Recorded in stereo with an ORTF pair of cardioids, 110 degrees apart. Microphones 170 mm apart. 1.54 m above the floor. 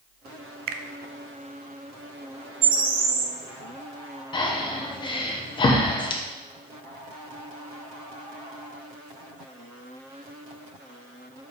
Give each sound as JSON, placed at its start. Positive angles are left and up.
{"t": 0.7, "sound": "a finger snap", "azimuth_deg": -65, "distance_m": 0.6}
{"t": 2.6, "sound": "a bird", "azimuth_deg": -60, "distance_m": 1.0}
{"t": 4.3, "sound": "breathing", "azimuth_deg": 30, "distance_m": 1.1}